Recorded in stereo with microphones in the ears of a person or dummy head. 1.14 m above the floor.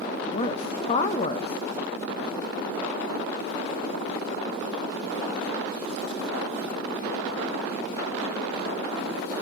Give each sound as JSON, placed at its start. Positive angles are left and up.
{"t": 0.3, "sound": "a woman speaking", "side_deg": 25, "distance_m": 1.1}